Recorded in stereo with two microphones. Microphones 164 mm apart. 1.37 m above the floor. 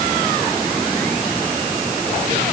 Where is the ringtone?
I don't hear a ringtone.